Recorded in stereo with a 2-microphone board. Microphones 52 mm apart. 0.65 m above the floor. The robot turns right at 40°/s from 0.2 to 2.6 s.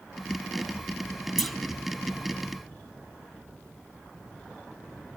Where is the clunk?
5° left (ahead or behind), 1.6 m; by 1.6 s centre (ahead or behind), 1.6 m.